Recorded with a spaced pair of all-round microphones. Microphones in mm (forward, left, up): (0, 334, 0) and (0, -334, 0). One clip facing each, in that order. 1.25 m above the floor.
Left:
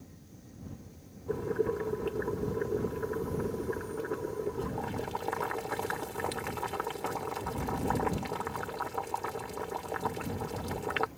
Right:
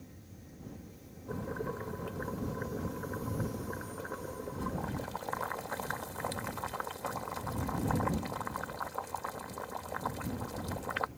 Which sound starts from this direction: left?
Boiling, at 1.3 s.